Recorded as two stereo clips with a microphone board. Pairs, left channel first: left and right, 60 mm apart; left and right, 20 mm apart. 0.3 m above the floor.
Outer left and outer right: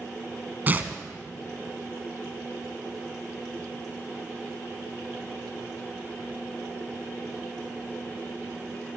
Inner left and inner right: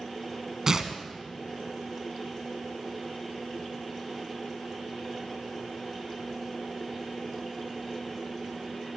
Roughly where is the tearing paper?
Right.